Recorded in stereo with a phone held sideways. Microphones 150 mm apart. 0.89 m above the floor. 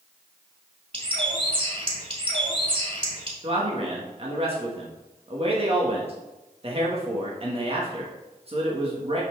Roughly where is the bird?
Right.